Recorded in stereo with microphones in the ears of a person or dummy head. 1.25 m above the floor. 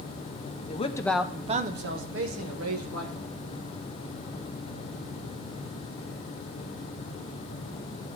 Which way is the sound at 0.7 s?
35° left (ahead or behind).